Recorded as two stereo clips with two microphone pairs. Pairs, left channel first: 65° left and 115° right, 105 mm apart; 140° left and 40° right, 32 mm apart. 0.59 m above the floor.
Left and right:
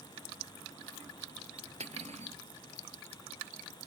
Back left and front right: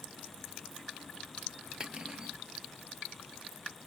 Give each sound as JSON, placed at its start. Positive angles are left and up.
{"t": 1.8, "sound": "cutlery clinking", "azimuth_deg": -110}